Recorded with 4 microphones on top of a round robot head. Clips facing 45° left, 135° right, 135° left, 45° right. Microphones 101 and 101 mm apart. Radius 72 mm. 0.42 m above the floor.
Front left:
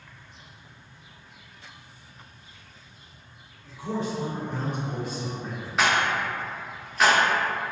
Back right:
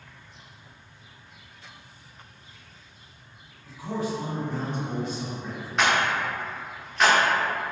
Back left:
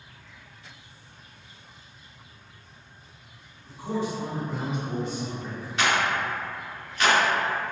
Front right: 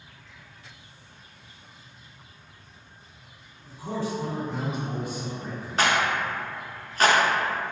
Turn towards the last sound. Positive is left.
turn(degrees=-45)